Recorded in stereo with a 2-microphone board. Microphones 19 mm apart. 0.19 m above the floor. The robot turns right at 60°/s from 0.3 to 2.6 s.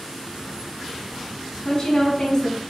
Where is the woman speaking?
40° left, 1.4 m; by 2.6 s 100° left, 1.4 m.